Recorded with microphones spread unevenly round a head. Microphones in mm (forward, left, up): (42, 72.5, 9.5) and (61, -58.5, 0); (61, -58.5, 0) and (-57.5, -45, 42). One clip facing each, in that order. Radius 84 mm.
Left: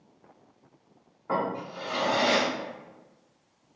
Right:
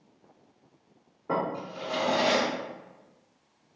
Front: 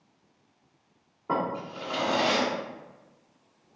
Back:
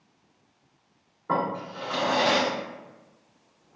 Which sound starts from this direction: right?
A drawer, at 1.3 s.